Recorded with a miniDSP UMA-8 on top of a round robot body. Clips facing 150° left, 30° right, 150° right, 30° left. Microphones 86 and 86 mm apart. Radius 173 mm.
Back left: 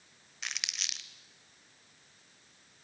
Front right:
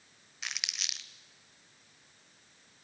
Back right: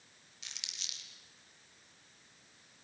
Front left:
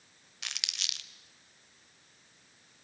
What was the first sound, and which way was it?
Crumpling, 60° left.